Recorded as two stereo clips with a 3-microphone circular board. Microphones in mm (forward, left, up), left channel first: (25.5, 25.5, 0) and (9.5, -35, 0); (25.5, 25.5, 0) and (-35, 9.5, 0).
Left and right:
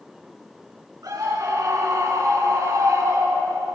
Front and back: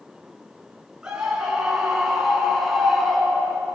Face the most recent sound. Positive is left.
turn(degrees=-75)